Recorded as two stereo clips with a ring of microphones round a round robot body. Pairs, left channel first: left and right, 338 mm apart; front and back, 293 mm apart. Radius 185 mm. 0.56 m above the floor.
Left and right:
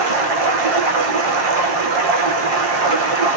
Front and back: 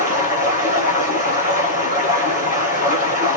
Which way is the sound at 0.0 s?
70° right.